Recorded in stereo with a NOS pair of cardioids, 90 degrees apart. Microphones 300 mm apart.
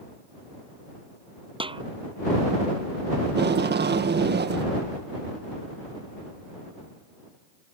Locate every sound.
1.6 s a snare drum: 15° right
3.3 s tape being pulled: 35° right